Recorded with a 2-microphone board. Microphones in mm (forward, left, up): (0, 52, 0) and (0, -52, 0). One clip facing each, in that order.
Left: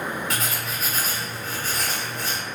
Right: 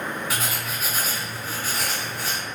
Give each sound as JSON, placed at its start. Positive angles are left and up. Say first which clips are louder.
{"t": 0.3, "sound": "writing", "louder": "even", "side_deg": -5, "distance_m": 0.6}